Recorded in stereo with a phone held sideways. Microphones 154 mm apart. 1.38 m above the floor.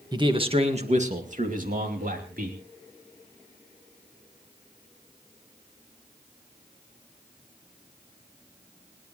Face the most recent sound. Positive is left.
turn(degrees=-70)  # may be behind; listen again after turning